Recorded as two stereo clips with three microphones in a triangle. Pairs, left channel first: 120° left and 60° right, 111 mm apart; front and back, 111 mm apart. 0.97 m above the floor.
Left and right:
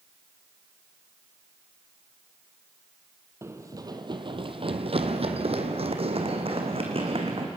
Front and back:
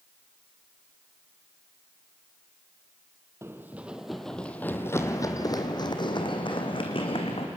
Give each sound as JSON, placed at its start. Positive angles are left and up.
{"t": 3.4, "sound": "running footsteps", "azimuth_deg": -120, "distance_m": 1.6}